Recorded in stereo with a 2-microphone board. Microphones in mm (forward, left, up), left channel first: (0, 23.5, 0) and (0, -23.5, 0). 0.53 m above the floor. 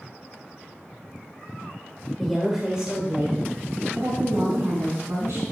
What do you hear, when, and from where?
2.2 s a woman speaking: 5° left (ahead or behind), 1.4 m; by 5.4 s 60° right (ahead or behind), 3.5 m